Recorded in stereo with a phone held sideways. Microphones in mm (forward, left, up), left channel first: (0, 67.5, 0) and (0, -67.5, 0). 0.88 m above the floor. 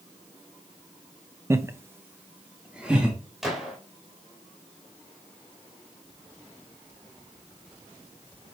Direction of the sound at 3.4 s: Centre (ahead or behind).